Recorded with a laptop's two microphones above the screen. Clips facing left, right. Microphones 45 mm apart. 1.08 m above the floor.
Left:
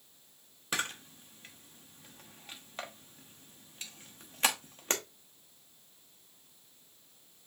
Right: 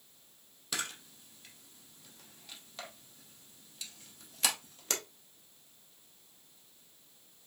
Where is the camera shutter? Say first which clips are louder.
Left 4 dB; 35° left (ahead or behind), 0.6 m.